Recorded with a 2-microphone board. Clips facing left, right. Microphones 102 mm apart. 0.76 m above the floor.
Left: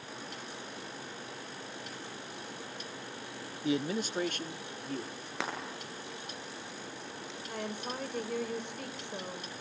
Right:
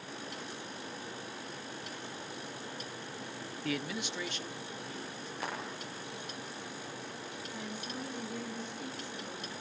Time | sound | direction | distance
3.6 | a man speaking | 15° left (ahead or behind) | 0.6 m
5.4 | frying | 90° left | 9.5 m
7.5 | a woman speaking | 65° left (ahead or behind) | 3.5 m